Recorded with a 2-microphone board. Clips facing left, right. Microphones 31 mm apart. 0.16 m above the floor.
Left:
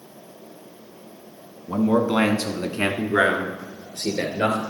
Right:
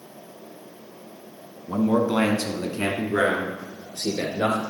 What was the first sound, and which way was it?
A man speaking, 10° left (ahead or behind).